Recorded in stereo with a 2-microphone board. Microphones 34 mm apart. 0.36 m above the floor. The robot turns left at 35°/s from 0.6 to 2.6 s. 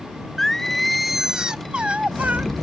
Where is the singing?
10° left; by 2.5 s 55° right.